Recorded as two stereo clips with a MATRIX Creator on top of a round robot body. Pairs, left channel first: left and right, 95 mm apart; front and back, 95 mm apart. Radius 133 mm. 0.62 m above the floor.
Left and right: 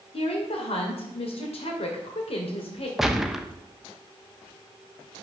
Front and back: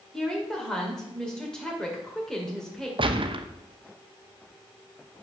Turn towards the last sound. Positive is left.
turn(degrees=-175)